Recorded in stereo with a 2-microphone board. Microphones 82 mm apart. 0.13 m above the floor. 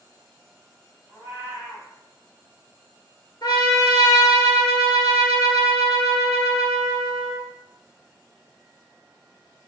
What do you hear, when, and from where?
1.1 s a cat meowing: 30° right (ahead or behind), 1.6 m
3.4 s a trumpet: 55° left (ahead or behind), 0.6 m